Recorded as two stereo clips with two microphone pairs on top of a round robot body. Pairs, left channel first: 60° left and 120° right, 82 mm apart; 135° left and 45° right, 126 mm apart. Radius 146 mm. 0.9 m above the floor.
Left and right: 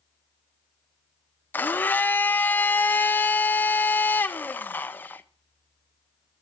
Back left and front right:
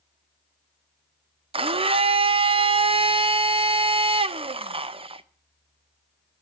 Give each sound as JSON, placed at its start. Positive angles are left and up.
{"t": 1.5, "sound": "a blender", "azimuth_deg": -5, "distance_m": 0.8}